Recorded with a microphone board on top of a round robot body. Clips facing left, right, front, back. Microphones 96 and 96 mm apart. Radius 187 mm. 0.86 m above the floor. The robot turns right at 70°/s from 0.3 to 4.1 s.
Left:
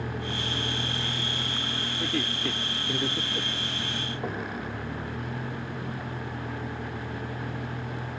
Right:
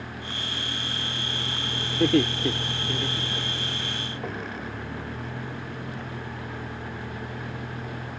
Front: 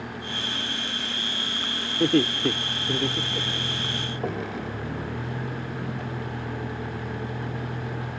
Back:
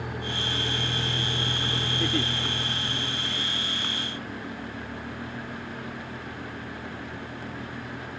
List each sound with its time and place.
0.0 s a vehicle: 105° left; by 8.2 s 10° left
2.0 s laughter: 55° right; by 3.9 s 75° left